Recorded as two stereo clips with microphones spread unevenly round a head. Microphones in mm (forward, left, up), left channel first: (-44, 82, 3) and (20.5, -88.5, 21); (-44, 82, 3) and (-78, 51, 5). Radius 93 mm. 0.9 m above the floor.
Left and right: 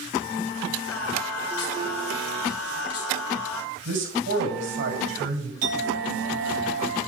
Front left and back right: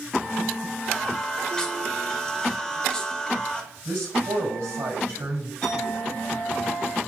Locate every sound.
0.9 s singing: 120° left, 2 m
3.9 s a man speaking: 90° right, 5 m
5.6 s a clink: 50° right, 5 m